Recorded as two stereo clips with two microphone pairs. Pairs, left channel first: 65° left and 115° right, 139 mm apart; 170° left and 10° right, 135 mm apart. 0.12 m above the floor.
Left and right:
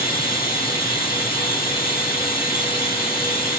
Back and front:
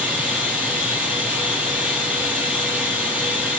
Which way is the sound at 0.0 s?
65° left.